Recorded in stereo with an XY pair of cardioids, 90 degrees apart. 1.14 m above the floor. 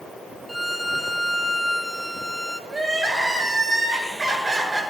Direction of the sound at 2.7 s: 35° right.